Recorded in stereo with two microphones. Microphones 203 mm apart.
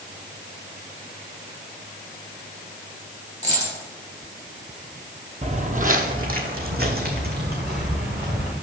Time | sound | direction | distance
3.4 | a dropped coin | 35° right (ahead or behind) | 3.5 m
5.4 | footsteps | 35° right (ahead or behind) | 0.7 m